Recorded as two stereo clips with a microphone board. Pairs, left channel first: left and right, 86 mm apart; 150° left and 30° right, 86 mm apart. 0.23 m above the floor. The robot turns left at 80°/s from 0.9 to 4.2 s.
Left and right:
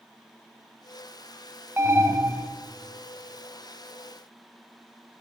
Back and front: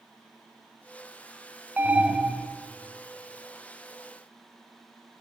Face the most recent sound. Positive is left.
turn(degrees=95)